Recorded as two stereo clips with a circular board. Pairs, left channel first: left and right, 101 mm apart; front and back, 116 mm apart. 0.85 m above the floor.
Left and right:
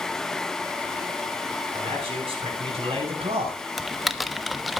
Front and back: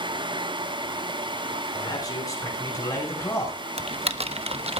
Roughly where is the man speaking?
Ahead right.